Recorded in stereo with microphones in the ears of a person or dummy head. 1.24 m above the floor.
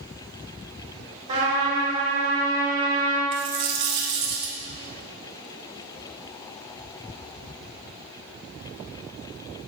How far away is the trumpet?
About 2.5 m.